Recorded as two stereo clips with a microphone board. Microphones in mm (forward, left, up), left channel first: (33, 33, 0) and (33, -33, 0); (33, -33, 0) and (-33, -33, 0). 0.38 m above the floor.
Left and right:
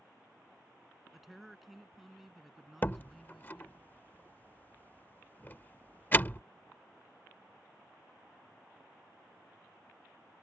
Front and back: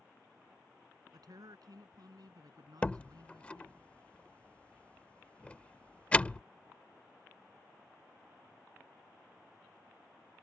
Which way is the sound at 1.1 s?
175° right.